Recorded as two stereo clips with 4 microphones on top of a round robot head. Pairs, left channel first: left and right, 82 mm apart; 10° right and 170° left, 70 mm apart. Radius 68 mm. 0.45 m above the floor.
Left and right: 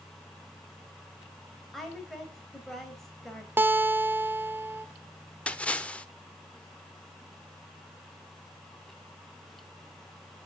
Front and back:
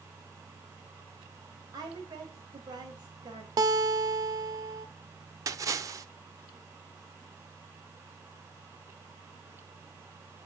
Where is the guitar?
155° right, 0.9 m.